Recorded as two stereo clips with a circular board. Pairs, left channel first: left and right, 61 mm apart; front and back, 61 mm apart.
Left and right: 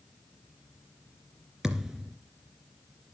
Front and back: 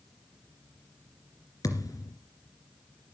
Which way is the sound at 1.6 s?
5° right.